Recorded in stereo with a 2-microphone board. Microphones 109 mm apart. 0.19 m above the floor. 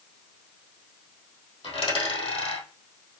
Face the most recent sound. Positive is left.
turn(degrees=65)  # may be behind; listen again after turning